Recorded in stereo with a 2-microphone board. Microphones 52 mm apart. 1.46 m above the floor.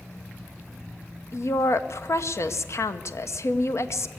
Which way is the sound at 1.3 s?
60° left (ahead or behind).